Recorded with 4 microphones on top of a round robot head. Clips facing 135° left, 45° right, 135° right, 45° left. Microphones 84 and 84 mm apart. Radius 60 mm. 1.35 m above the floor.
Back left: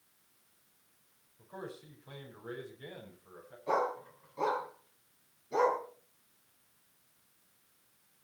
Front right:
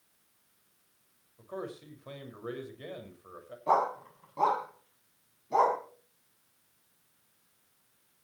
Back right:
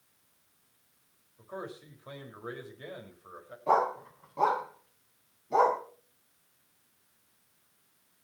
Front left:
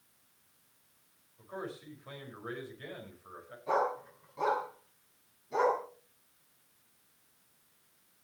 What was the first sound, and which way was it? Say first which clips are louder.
A man speaking: front right 5 dB, back right 1 dB; 65° right.